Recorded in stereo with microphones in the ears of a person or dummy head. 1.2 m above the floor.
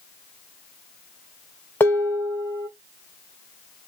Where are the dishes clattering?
10° left (ahead or behind), 0.6 m.